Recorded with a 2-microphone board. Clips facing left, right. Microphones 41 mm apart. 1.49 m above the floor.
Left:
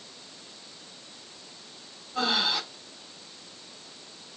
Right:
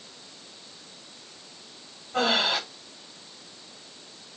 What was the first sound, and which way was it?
Breathing, 85° right.